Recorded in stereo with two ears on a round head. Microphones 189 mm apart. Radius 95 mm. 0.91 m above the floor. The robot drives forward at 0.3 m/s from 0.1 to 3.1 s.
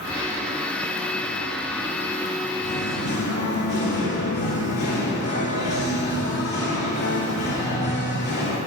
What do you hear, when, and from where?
2.6 s singing: 35° left (ahead or behind), 2 m